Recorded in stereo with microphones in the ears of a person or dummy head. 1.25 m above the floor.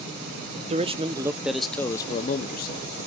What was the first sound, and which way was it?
A man speaking, 30° right (ahead or behind).